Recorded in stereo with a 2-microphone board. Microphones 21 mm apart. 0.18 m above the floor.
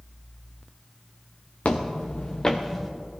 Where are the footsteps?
70° left (ahead or behind), 1.0 m; by 2.9 s 5° left (ahead or behind), 1.4 m.